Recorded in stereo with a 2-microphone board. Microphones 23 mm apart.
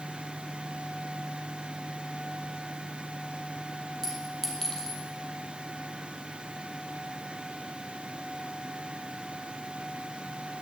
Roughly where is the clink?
Centre.